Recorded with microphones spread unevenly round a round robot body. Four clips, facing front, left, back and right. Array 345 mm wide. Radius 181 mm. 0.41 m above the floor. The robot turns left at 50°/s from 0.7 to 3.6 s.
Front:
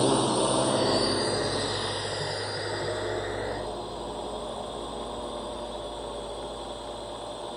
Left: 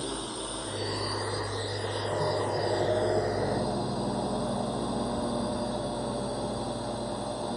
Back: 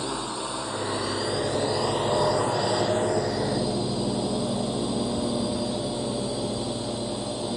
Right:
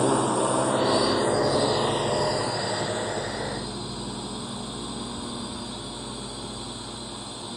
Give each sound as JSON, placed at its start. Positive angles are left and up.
{"t": 0.0, "sound": "a drone", "azimuth_deg": -60}